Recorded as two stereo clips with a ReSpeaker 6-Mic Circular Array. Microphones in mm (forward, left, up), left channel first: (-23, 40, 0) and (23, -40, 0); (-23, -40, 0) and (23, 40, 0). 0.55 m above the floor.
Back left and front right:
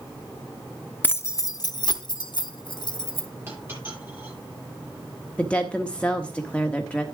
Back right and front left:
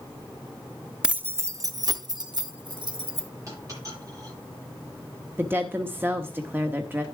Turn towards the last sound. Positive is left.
turn(degrees=65)